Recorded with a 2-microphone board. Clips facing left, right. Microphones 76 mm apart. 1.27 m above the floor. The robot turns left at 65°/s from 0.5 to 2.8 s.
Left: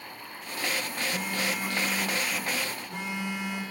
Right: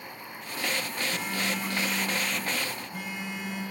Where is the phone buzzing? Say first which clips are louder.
Left 1 dB; 150° right, 5 m; by 3.6 s 100° left, 5 m.